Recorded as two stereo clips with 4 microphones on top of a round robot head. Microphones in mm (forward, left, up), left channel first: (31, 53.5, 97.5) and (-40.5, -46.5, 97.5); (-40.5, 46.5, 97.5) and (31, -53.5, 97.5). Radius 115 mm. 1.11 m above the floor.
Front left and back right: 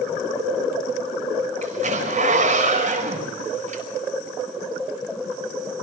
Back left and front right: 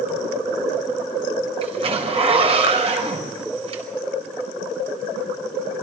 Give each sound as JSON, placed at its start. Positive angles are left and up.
{"t": 1.6, "sound": "a zipper", "azimuth_deg": -100, "distance_m": 5.0}